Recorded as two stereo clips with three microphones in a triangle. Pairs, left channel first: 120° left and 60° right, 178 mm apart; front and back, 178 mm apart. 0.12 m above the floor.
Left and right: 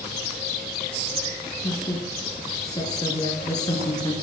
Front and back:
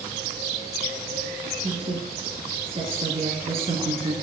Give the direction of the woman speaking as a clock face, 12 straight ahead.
6 o'clock.